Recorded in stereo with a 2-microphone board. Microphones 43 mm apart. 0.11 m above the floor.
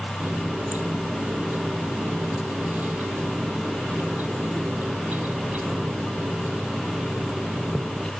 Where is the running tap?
50° right (ahead or behind), 1.9 m.